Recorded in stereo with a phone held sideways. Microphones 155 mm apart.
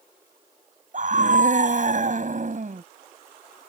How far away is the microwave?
I don't hear a microwave.